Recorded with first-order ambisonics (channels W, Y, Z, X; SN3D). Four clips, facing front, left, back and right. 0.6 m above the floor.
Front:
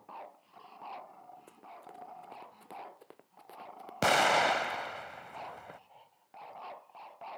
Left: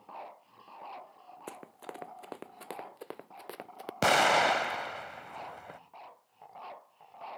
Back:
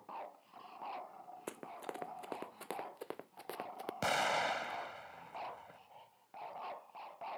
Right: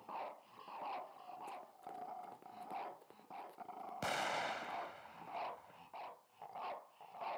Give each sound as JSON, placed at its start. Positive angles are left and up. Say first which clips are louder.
{"t": 1.5, "sound": "running footsteps", "louder": "left 5 dB, back 10 dB", "azimuth_deg": 130}
{"t": 4.0, "sound": "an explosion", "louder": "left 16 dB, front 8 dB", "azimuth_deg": 60}